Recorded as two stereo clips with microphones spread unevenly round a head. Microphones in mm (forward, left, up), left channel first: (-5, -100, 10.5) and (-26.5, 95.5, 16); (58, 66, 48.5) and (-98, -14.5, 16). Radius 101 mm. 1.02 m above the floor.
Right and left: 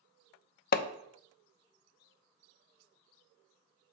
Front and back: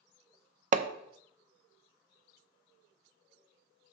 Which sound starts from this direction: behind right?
Hammering, at 0.7 s.